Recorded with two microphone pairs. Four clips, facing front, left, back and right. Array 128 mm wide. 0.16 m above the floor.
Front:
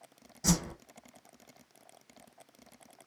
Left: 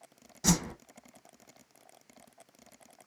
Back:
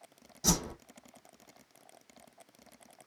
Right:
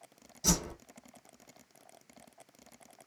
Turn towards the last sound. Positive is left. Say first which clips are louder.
# left 4 dB, front 2 dB
turn(degrees=105)